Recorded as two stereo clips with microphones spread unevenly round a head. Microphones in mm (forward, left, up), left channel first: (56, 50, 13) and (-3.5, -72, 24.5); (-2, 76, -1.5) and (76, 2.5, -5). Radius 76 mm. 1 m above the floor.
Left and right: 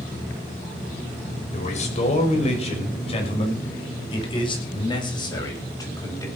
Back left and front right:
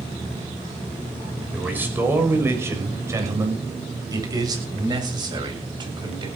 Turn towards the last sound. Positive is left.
turn(degrees=0)